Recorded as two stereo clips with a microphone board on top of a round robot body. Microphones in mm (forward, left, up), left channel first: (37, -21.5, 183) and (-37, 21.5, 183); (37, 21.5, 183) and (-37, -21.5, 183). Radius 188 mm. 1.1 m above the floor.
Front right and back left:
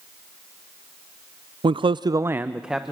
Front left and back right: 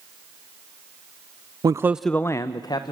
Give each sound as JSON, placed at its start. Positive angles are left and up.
{"t": 1.6, "sound": "a man speaking", "azimuth_deg": 165, "distance_m": 0.6}